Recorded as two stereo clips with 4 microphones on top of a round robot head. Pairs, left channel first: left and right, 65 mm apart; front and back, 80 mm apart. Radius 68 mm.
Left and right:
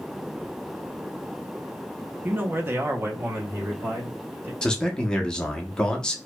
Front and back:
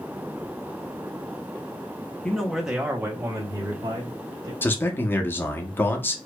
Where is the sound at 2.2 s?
70° right, 0.9 m; by 4.5 s 140° right, 2.0 m.